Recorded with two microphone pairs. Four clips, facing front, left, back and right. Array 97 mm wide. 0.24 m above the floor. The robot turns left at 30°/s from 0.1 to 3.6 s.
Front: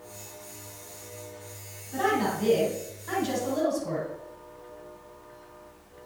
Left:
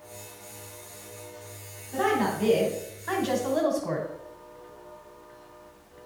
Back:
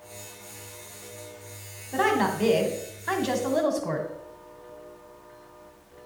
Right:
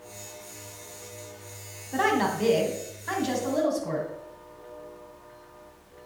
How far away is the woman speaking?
About 1.9 m.